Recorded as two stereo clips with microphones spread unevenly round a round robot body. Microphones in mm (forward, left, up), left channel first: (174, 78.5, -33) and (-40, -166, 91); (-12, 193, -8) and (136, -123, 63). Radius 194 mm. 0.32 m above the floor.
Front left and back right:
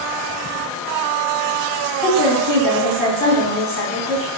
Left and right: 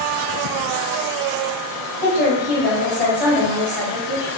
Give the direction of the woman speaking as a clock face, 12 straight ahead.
9 o'clock.